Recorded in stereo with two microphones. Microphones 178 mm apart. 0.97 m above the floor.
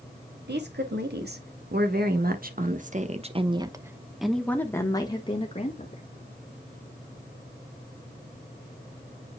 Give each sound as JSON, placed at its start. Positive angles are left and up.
{"t": 0.5, "sound": "a woman speaking", "side_deg": -70, "distance_m": 2.0}